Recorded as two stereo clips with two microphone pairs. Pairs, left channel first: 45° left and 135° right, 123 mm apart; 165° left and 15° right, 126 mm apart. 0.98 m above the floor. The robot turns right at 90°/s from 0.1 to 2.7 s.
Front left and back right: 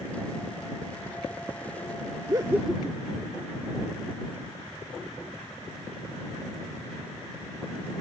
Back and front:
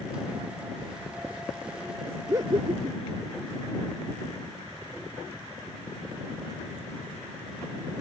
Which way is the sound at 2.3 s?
85° right.